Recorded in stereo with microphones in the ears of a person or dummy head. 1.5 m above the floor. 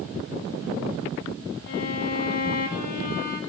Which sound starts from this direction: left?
A violin, at 1.7 s.